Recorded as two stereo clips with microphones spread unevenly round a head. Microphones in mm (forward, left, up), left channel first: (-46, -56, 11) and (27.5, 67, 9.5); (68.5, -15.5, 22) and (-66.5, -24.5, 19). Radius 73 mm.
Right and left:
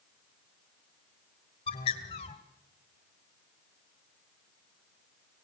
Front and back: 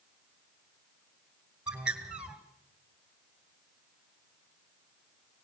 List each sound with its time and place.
1.7 s a bird: 95° right, 2 m